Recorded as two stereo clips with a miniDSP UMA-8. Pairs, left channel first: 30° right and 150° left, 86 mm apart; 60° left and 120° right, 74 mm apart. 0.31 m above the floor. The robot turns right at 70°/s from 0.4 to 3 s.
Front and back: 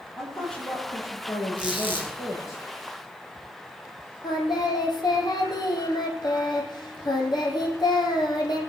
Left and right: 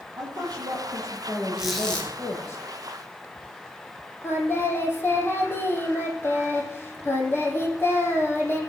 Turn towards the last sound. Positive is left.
turn(degrees=0)